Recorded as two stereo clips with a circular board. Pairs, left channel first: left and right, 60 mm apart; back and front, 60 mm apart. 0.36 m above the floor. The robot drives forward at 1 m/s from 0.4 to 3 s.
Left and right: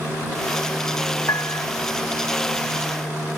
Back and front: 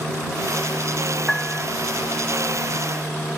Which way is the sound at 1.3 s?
95° left.